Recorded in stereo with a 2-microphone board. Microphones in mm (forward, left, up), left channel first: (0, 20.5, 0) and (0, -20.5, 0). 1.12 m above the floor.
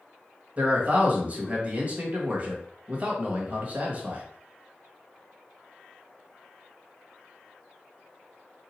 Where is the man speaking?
35° right (ahead or behind), 1.3 m.